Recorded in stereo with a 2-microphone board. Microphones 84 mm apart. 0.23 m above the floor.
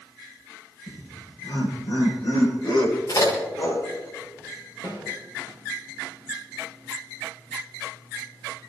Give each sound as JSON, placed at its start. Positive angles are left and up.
{"t": 0.9, "sound": "laughter", "side_deg": 75, "distance_m": 8.5}
{"t": 3.1, "sound": "a crack", "side_deg": 55, "distance_m": 6.5}
{"t": 4.8, "sound": "a snare drum", "side_deg": 45, "distance_m": 9.0}